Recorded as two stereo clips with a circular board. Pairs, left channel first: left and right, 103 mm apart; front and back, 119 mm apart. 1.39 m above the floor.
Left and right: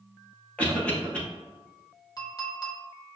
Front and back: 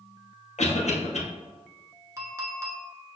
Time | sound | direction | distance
0.6 | a cough | 15° left | 1.3 m
2.2 | a clink | 125° left | 0.9 m